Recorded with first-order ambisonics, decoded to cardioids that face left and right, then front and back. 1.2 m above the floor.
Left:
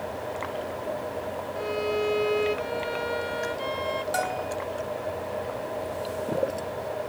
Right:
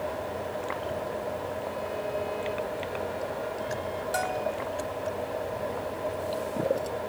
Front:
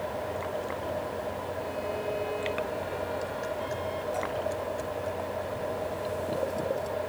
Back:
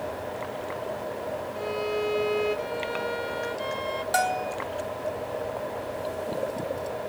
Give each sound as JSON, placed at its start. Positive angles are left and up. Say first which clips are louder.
{"t": 1.6, "sound": "a violin", "louder": "left 5 dB, back 4 dB", "azimuth_deg": 130}
{"t": 4.1, "sound": "a bell", "louder": "left 1 dB, back 9 dB", "azimuth_deg": 175}